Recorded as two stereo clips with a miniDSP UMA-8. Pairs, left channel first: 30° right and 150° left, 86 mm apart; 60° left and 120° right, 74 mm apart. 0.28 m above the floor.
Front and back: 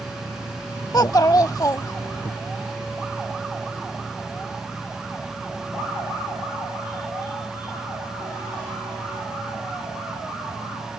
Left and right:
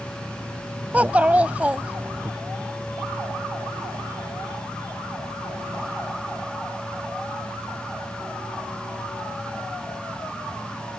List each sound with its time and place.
0.9 s a child speaking: 55° right